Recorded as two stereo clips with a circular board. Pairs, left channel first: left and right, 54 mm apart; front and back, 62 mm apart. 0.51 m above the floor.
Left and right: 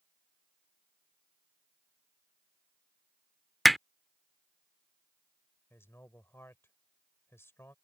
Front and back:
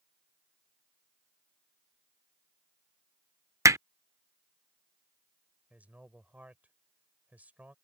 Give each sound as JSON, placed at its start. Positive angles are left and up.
{"t": 3.6, "sound": "hammering", "azimuth_deg": 180}
{"t": 5.7, "sound": "a man speaking", "azimuth_deg": 120}